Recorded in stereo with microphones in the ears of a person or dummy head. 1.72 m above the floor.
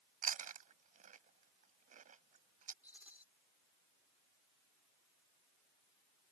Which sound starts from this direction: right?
Chewing, at 0.2 s.